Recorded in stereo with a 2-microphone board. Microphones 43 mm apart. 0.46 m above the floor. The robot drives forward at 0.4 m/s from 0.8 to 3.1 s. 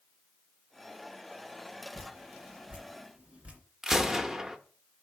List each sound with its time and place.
1.9 s dripping: 40° right (ahead or behind), 1.8 m; by 3.6 s 35° right (ahead or behind), 2 m
3.8 s a gunshot: 15° right (ahead or behind), 0.5 m